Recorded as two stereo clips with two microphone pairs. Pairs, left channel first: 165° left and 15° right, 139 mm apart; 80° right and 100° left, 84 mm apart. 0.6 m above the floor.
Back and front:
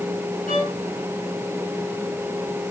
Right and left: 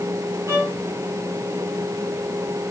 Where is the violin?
155° left, 6.5 m.